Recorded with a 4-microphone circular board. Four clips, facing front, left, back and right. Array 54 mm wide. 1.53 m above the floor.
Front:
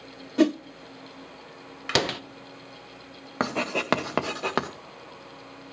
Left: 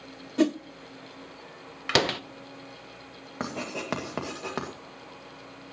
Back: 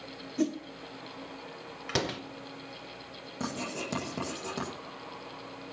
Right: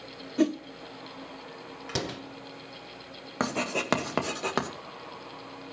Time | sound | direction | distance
0.4 | a whoosh | 15° left | 0.6 m
1.9 | a door slam | 60° left | 0.9 m
3.4 | writing | 15° right | 1.9 m